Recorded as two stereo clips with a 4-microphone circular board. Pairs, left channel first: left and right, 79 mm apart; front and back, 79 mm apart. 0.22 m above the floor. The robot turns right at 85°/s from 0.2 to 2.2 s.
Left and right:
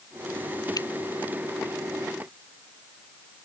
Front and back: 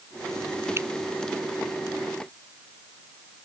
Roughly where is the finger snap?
Behind left.